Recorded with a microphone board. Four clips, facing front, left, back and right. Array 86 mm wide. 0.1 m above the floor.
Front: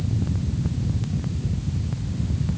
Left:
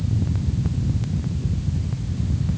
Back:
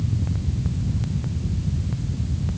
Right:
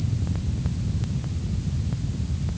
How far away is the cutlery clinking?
I don't hear cutlery clinking.